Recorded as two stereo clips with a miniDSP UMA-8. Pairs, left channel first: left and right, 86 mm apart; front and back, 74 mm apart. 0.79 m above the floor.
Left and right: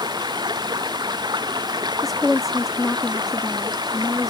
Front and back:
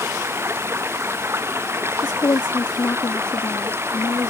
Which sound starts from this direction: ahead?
A woman speaking, at 2.0 s.